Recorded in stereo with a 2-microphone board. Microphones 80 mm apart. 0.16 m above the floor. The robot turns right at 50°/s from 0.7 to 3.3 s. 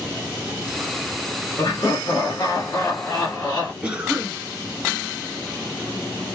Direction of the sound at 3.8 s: 15° right (ahead or behind).